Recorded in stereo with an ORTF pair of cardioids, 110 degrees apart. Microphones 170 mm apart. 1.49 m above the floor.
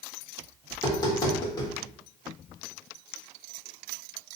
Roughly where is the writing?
No writing in this recording.